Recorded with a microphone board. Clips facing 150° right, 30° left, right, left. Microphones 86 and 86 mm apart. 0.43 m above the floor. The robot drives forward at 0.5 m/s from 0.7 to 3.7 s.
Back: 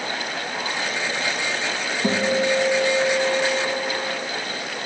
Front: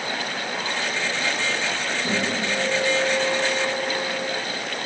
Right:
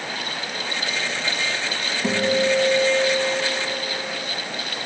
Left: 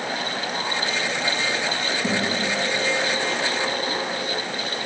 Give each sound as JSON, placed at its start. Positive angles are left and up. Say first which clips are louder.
{"t": 2.0, "sound": "a guitar", "louder": "back 7 dB, right 7 dB", "azimuth_deg": -165, "distance_m": 1.4}